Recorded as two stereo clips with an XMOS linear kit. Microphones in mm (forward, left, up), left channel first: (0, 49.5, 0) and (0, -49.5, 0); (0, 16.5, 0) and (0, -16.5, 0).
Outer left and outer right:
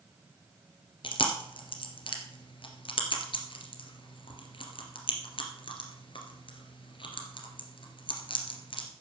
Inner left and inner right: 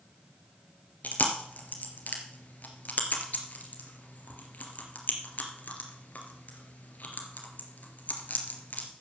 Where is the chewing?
60° left (ahead or behind), 2 m.